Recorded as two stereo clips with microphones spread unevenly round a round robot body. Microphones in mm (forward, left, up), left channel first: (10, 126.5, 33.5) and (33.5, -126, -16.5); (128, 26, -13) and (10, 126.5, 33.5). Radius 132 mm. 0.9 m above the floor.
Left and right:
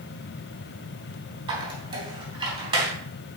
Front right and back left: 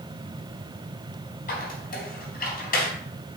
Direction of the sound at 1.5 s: 10° right.